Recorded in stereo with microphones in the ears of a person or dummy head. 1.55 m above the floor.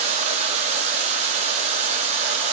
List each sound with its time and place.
0.0 s running water: 35° right (ahead or behind), 1.3 m